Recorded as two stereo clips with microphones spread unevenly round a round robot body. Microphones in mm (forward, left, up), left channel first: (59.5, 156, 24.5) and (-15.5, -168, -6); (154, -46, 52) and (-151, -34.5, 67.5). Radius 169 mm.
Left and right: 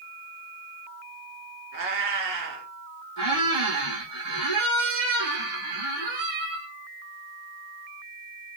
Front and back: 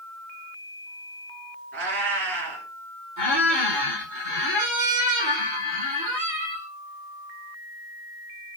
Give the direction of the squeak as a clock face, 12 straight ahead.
5 o'clock.